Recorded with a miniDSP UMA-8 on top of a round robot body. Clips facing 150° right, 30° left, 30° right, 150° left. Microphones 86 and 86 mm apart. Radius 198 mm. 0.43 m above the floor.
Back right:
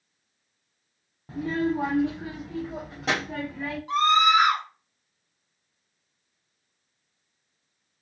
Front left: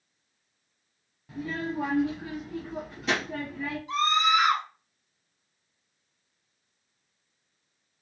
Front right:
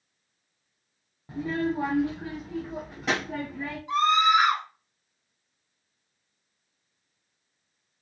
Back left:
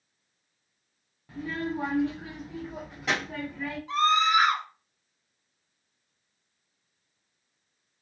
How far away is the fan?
No fan in this recording.